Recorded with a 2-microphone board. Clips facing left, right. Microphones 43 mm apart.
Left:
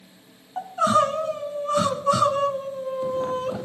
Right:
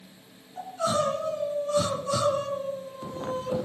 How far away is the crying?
About 1.7 m.